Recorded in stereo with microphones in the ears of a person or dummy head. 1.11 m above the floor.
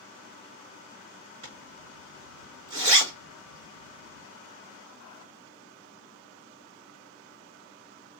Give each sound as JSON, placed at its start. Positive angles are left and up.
{"t": 1.4, "sound": "a zipper", "side_deg": -80, "distance_m": 4.0}